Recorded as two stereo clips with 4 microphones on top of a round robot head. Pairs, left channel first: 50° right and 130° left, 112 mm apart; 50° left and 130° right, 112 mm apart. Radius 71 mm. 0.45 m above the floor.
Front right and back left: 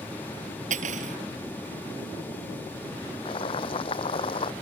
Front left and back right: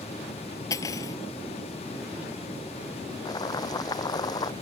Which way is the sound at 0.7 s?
115° left.